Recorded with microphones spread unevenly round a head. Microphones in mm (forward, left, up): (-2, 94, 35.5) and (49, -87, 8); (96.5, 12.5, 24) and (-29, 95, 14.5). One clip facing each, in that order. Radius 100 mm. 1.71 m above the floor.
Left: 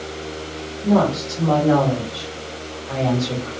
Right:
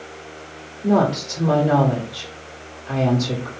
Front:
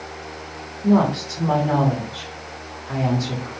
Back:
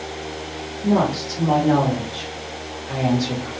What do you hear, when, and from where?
0.8 s a woman speaking: 150° right, 1.1 m